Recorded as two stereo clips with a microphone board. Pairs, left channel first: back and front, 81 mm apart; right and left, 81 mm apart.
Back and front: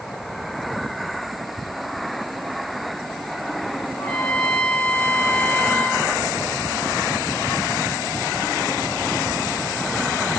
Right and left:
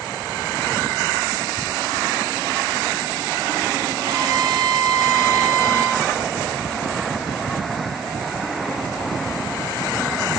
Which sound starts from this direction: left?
A trumpet, at 4.0 s.